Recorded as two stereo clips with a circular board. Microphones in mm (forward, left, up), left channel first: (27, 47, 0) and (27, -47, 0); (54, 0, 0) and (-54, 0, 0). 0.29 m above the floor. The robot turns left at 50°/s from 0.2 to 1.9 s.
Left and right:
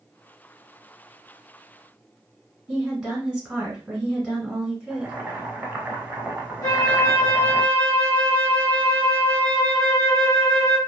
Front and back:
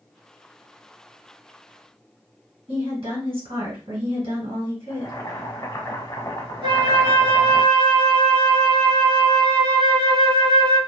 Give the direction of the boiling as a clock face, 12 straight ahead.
1 o'clock.